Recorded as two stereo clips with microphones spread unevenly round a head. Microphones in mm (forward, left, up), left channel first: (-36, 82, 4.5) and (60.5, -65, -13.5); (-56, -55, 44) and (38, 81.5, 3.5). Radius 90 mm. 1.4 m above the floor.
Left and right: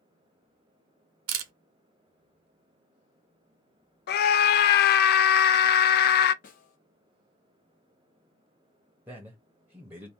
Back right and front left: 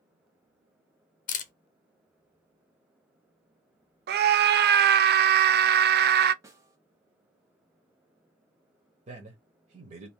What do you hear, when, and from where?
1.3 s a camera shutter: 75° right, 0.6 m
4.1 s a scream: 85° left, 0.5 m
6.4 s a snare drum: 135° left, 0.9 m
9.1 s a man speaking: 20° left, 0.8 m